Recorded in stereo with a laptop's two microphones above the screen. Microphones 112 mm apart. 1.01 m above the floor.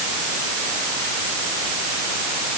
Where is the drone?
No drone in this recording.